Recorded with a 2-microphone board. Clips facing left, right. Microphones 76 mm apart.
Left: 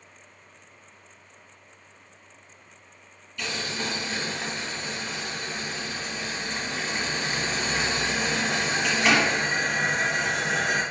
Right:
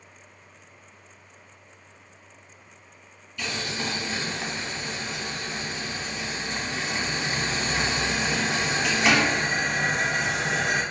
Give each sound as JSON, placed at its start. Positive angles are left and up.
{"t": 3.4, "sound": "boiling", "side_deg": 5, "distance_m": 1.1}